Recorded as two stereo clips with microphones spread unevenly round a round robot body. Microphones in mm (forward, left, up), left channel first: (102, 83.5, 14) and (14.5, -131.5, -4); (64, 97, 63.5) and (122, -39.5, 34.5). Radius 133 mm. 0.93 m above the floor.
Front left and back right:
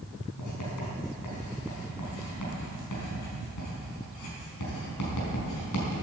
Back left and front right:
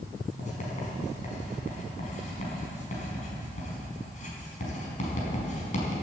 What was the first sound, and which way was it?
Writing, 80° left.